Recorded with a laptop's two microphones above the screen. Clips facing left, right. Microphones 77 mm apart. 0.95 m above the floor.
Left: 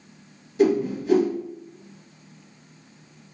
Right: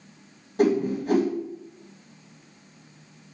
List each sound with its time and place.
0.6 s a whoosh: 55° right (ahead or behind), 1.6 m